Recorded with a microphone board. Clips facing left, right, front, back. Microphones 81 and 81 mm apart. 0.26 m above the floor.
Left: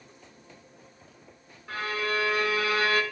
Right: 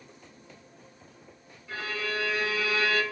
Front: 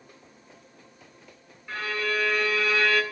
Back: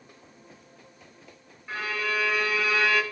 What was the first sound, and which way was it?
A violin, 105° left.